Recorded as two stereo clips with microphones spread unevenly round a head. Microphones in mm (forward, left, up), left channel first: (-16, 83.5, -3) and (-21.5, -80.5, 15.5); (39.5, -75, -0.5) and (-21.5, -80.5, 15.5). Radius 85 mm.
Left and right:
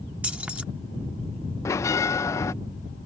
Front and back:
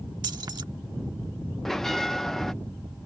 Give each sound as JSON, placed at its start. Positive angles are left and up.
{"t": 0.2, "sound": "keys jangling", "azimuth_deg": -175}
{"t": 1.6, "sound": "a bell", "azimuth_deg": 55}